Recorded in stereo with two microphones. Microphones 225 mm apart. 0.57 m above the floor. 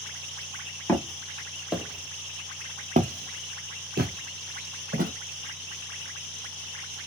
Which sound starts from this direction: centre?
Footsteps, at 0.9 s.